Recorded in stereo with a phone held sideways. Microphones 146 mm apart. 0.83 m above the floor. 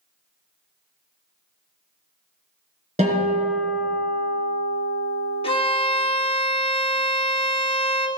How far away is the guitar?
About 4 m.